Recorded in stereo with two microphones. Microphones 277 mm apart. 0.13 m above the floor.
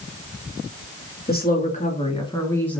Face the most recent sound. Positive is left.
turn(degrees=5)  # may be behind; listen again after turning